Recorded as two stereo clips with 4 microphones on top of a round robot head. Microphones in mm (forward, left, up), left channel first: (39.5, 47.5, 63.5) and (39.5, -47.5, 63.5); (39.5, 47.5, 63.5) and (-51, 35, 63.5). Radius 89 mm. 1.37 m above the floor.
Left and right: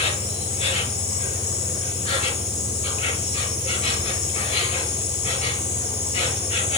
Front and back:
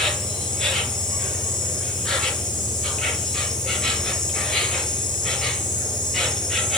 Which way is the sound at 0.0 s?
90° left.